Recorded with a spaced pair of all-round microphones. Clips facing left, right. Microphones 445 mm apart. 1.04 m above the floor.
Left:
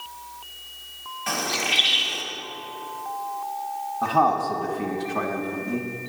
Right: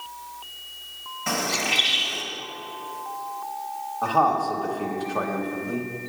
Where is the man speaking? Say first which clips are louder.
Left 1 dB; 40° left (ahead or behind), 1.1 m.